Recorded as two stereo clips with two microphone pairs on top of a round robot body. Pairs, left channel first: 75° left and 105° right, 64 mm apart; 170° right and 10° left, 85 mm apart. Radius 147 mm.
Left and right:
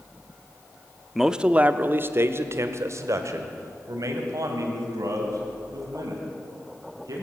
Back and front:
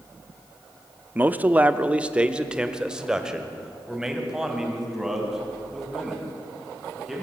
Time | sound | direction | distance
1.1 | a man speaking | 5° right | 0.9 m